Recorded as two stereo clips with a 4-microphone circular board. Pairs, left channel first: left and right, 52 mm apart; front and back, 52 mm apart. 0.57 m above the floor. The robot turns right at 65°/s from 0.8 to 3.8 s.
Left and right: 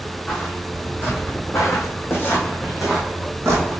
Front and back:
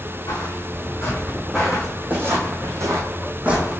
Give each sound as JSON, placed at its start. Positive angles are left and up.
{"t": 0.3, "sound": "footsteps", "azimuth_deg": 15, "distance_m": 2.0}